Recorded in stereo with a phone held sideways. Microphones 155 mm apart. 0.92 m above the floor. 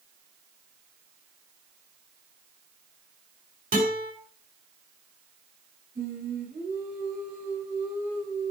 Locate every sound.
3.7 s a guitar: 55° right (ahead or behind), 6.5 m
6.0 s singing: 60° right (ahead or behind), 5.5 m